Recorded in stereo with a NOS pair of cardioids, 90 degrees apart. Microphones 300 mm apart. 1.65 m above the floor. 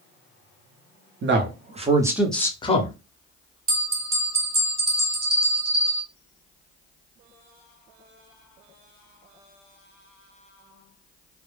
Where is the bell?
30° right, 1.5 m.